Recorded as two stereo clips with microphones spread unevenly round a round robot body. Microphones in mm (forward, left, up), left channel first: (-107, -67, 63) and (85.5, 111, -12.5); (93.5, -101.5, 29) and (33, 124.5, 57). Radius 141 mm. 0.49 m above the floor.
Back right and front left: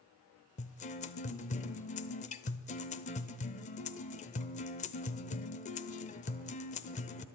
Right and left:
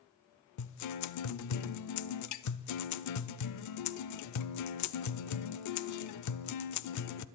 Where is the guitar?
70° right, 0.6 m.